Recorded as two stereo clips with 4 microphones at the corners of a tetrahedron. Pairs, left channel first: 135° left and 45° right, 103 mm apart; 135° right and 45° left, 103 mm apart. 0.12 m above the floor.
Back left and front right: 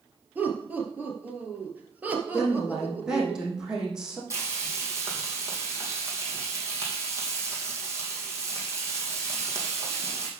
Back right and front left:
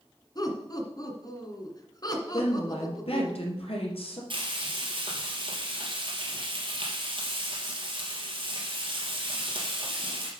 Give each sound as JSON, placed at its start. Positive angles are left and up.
{"t": 0.3, "sound": "laughter", "azimuth_deg": -110, "distance_m": 2.0}
{"t": 2.3, "sound": "a woman speaking", "azimuth_deg": -130, "distance_m": 3.5}
{"t": 4.3, "sound": "frying", "azimuth_deg": 15, "distance_m": 3.0}